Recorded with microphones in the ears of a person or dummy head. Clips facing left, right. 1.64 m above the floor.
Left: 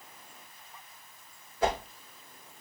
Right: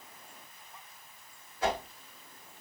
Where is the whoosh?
65° left (ahead or behind), 3 m.